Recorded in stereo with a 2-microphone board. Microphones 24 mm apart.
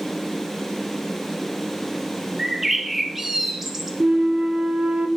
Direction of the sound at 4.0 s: 90° right.